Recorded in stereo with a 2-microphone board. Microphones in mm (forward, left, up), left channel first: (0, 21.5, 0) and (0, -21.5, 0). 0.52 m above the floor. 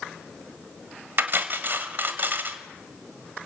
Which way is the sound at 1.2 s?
50° right (ahead or behind).